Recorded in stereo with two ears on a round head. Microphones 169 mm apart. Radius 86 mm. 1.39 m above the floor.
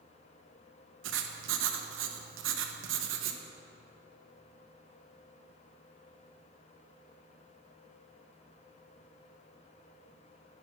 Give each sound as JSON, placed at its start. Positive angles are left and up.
{"t": 1.0, "sound": "writing", "side_deg": -70, "distance_m": 1.1}